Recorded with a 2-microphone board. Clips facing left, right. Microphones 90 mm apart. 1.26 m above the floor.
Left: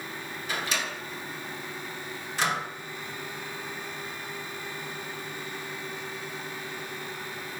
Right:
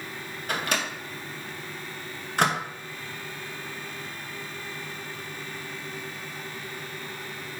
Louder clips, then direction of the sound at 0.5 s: Right 3 dB; 55° right (ahead or behind).